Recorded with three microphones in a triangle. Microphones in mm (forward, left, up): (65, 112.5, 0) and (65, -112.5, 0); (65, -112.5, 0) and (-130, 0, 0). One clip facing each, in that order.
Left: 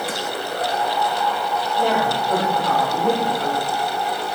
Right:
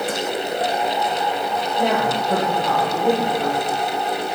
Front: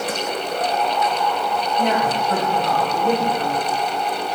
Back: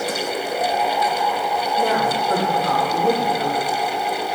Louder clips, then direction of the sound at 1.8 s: Right 1 dB, even; 165° right.